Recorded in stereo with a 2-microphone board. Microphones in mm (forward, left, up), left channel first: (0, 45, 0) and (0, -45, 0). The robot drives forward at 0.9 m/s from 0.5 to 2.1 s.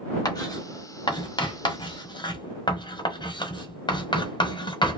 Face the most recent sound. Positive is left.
turn(degrees=55)  # may be behind; listen again after turning